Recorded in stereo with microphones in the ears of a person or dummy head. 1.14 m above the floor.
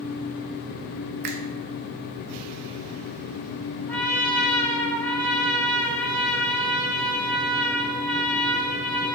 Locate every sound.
1.2 s a finger snap: 55° right (ahead or behind), 0.6 m
3.9 s a trumpet: 10° left (ahead or behind), 1.2 m